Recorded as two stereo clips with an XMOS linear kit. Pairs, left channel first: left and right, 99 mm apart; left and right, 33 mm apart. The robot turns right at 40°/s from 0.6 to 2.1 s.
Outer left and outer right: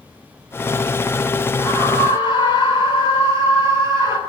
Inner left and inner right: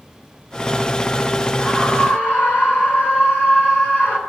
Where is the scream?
30° left (ahead or behind), 8.5 m; by 4.2 s 50° left (ahead or behind), 8.5 m.